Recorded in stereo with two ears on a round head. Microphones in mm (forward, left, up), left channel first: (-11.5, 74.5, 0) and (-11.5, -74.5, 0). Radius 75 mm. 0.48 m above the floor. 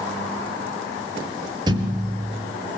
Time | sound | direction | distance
1.7 | a thud | 25° right (ahead or behind) | 3.5 m